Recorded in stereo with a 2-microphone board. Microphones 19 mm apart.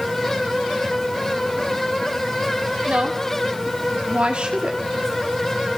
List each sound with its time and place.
2.9 s a woman speaking: 80° right, 5 m; by 4.8 s 55° right (ahead or behind), 4 m